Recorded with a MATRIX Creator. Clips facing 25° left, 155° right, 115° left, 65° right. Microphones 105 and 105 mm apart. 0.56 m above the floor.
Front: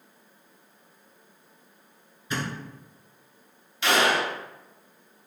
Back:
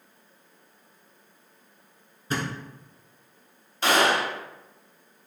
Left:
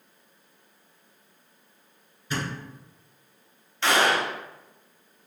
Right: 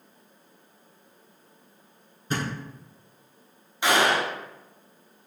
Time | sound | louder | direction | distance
2.3 | a thud | back 2 dB, right 2 dB | 110° right | 1.2 m
3.8 | a gunshot | back 1 dB, even | 135° right | 0.9 m